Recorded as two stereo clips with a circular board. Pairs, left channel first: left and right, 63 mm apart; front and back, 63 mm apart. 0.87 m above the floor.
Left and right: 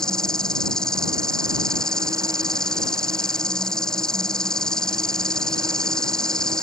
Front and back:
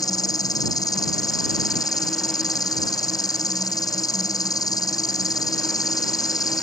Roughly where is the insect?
Ahead.